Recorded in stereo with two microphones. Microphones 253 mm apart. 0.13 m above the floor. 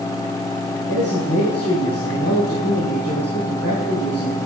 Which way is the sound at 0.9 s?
75° left (ahead or behind).